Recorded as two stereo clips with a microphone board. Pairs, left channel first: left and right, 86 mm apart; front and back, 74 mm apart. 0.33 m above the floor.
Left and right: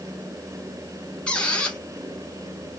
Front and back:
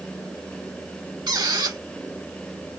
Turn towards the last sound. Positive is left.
turn(degrees=165)